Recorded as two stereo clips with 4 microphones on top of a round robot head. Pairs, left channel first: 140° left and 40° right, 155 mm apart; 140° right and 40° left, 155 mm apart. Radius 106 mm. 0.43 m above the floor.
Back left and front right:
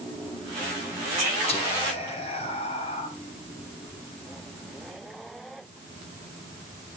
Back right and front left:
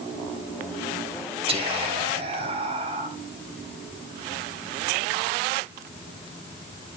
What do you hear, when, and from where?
1.5 s whispering: 90° left, 2.5 m